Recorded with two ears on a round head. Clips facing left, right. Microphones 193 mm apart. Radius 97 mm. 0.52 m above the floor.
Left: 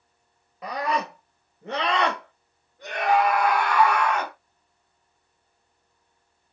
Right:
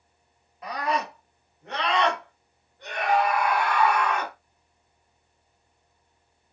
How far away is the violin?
No violin in this recording.